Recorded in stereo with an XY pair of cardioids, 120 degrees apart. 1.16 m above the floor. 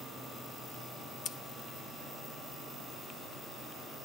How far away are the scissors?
About 0.7 m.